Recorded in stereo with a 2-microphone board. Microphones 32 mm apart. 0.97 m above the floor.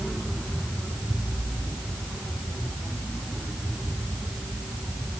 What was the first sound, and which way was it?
Only background noise.